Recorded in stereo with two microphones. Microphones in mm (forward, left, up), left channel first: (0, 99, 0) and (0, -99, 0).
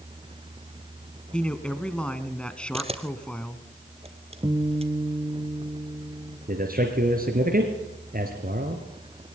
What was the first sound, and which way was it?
A man speaking, 5° left (ahead or behind).